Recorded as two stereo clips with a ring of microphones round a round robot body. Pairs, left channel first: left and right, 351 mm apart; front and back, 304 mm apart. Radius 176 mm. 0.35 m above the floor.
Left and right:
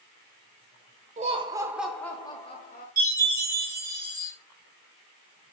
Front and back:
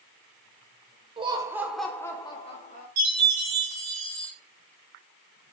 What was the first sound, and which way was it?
Laughter, 130° right.